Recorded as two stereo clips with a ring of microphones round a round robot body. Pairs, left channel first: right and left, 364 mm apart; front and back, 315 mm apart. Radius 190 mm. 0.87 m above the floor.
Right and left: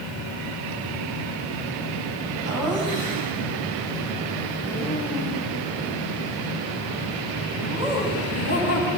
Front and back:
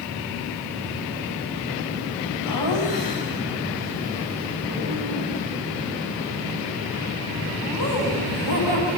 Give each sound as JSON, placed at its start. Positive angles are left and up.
{"t": 2.5, "sound": "laughter", "azimuth_deg": 10, "distance_m": 5.5}